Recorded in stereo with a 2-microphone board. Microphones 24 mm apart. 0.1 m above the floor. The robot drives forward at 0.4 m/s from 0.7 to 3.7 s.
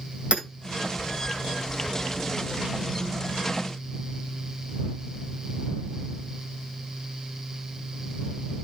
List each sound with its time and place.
0.3 s hammering: 60° right (ahead or behind), 2.0 m